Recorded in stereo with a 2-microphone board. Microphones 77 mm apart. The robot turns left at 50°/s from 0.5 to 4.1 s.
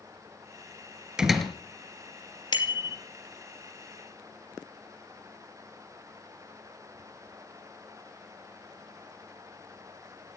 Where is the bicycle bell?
75° left (ahead or behind), 2.5 m; by 3.0 s 60° left (ahead or behind), 2.5 m.